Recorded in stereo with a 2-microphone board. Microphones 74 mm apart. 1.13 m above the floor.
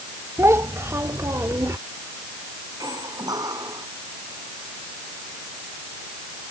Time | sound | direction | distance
0.4 | a child speaking | 40° right (ahead or behind) | ?
2.8 | a squeak | 60° right (ahead or behind) | ?